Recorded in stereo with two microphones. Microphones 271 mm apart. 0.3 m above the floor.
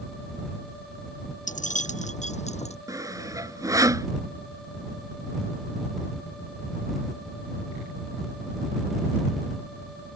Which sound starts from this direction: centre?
Sawing, at 2.9 s.